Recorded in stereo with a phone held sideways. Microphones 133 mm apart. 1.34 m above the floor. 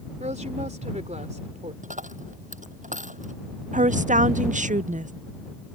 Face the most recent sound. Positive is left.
turn(degrees=-70)  # may be behind; listen again after turning